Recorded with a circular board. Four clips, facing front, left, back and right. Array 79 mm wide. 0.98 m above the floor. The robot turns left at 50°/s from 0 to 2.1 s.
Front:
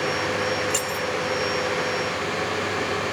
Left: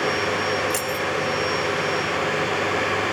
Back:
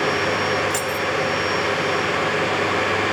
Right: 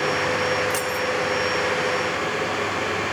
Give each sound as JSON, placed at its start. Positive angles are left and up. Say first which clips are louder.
{"t": 0.7, "sound": "keys jangling", "louder": "right 1 dB, back 3 dB", "azimuth_deg": -10, "distance_m": 1.1}